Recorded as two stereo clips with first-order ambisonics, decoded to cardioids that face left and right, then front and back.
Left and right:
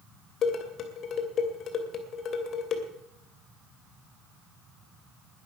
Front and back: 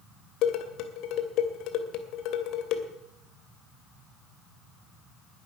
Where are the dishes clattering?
35° left, 2 m.